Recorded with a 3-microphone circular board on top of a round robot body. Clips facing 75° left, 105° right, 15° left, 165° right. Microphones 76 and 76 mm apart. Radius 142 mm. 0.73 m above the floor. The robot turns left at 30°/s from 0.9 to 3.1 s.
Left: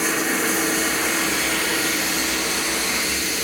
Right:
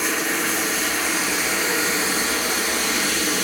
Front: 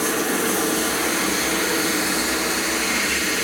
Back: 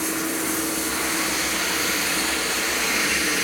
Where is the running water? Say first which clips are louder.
Left 1 dB, front 4 dB; 10° right, 2.5 m; by 3.4 s 80° right, 2.5 m.